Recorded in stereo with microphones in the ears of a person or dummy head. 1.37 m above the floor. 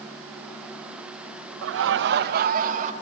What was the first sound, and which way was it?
Laughter, 70° right (ahead or behind).